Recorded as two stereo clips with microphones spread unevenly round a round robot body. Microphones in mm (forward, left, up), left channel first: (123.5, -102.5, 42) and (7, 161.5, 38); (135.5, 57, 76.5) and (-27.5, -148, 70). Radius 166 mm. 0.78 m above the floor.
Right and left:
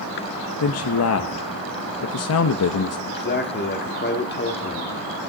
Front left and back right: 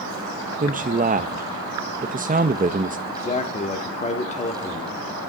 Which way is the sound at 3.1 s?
15° right.